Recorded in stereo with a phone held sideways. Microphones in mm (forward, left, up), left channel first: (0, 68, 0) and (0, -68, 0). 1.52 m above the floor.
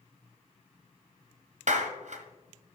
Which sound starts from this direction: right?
A clap, at 1.7 s.